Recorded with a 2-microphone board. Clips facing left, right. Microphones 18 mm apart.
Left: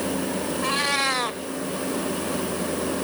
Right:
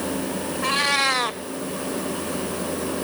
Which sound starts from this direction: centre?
A cat meowing, at 0.6 s.